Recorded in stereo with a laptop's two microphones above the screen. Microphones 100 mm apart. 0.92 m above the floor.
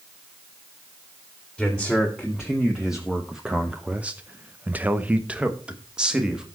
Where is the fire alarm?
I don't hear a fire alarm.